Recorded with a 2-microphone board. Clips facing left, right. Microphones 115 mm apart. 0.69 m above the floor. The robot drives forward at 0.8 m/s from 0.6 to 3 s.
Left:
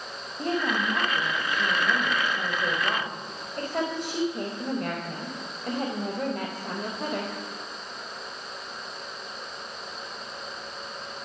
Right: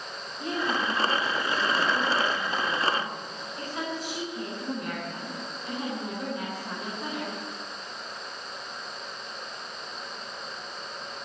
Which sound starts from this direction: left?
A woman speaking, at 0.4 s.